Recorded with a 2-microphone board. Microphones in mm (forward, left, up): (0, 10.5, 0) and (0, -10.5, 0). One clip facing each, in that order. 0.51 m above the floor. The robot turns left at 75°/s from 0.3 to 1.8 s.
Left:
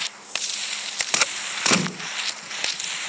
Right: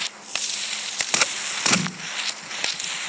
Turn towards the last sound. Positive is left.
turn(degrees=80)